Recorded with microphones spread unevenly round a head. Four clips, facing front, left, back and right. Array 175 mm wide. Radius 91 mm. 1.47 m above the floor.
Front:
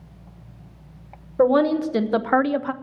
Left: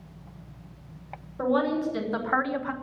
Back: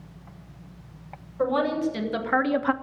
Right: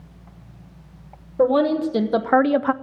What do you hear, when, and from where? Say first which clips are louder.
1.4 s a woman speaking: right 7 dB, front 6 dB; 40° right, 1.5 m; by 2.7 s 105° right, 0.5 m